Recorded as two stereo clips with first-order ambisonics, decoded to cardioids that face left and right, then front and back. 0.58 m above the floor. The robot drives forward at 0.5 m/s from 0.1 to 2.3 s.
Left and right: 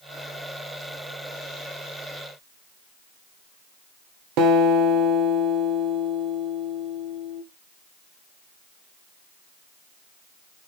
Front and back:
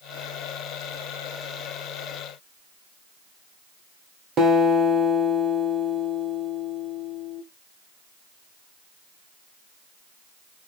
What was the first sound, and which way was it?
A guitar, 120° right.